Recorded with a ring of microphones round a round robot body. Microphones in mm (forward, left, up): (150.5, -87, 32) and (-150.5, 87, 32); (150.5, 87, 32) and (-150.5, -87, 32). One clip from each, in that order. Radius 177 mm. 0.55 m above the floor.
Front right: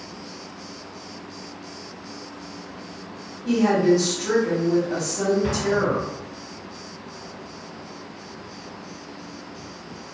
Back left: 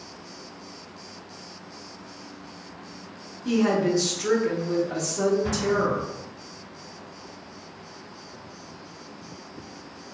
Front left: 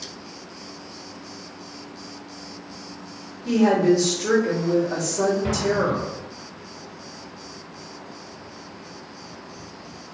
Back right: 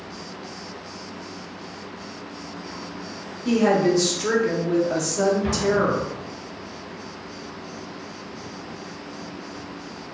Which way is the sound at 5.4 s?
75° right.